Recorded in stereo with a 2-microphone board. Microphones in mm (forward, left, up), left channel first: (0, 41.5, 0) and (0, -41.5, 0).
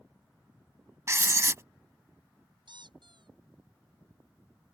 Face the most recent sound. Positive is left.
turn(degrees=-70)  # may be behind; listen again after turning